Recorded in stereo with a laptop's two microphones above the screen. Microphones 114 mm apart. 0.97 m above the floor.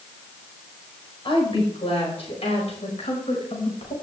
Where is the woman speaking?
50° left (ahead or behind), 4.5 m; by 3.9 s 70° left (ahead or behind), 5.5 m.